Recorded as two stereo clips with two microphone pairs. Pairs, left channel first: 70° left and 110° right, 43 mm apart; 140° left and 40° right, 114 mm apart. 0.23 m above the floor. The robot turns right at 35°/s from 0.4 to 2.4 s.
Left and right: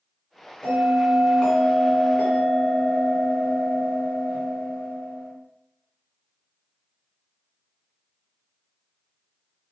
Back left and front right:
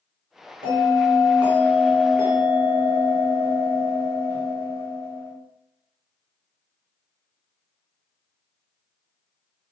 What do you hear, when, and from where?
0.6 s a bell: 25° right, 2 m; by 5.3 s 35° left, 2 m